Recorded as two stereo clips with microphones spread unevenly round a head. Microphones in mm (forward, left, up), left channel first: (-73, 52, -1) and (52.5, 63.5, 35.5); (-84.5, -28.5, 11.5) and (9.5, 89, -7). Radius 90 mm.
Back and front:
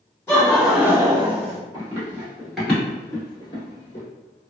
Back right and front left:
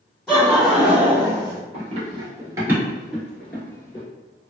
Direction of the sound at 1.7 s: 10° left.